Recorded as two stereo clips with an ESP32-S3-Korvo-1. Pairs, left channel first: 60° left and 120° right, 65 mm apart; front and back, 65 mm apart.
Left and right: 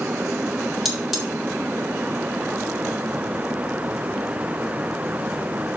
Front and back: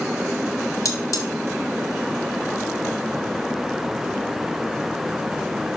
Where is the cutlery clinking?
35° right, 2 m.